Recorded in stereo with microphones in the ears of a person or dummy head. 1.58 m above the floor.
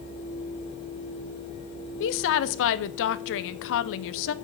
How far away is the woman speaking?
About 0.7 m.